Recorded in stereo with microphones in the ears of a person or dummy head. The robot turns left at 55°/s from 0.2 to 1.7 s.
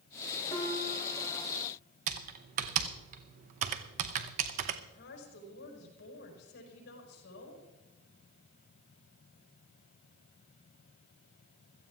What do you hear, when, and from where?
0.5 s a piano: 30° left, 3 m; by 1.6 s 30° right, 3 m
2.1 s typing on a keyboard: 50° right (ahead or behind), 0.8 m
4.9 s a woman speaking: 60° left (ahead or behind), 5.5 m